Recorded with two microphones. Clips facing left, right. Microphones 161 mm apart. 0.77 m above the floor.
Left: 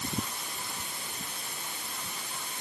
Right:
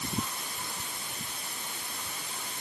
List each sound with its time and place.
Only background noise.